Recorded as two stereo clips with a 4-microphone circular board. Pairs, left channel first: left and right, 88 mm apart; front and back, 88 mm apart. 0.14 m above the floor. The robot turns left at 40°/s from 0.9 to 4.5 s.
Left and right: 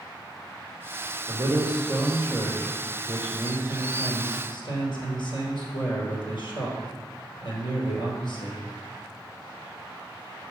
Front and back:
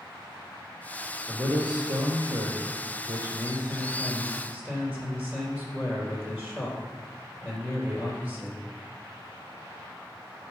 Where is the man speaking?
120° right, 3.5 m; by 8.6 s 110° left, 3.5 m.